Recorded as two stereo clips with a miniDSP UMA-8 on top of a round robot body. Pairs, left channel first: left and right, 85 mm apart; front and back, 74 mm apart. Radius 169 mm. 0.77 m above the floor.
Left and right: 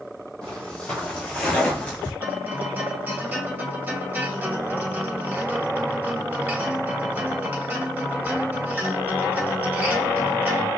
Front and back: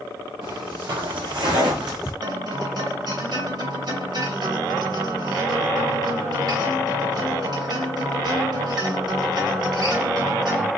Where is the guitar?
160° right, 2.5 m.